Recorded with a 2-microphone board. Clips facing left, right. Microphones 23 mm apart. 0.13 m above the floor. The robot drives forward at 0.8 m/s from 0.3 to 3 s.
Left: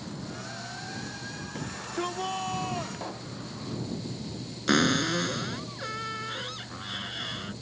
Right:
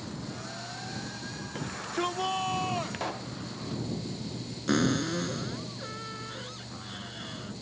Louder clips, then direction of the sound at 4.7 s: Left 3 dB; 35° left (ahead or behind).